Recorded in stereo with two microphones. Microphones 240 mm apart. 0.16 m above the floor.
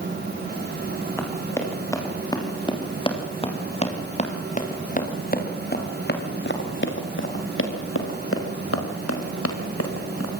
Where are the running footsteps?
10° left (ahead or behind), 6.5 m; by 10.3 s 80° left, 5.5 m.